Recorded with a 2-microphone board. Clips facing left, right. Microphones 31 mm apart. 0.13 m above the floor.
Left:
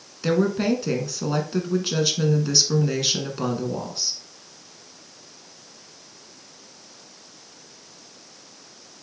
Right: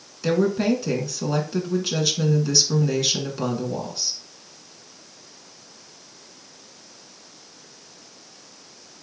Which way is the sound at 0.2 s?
10° left (ahead or behind).